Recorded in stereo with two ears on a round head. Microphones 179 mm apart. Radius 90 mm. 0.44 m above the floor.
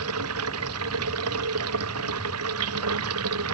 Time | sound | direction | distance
0.0 | running water | 85° right | ?